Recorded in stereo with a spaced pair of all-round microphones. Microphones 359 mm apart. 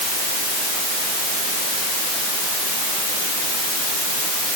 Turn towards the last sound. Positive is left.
No sound to turn to.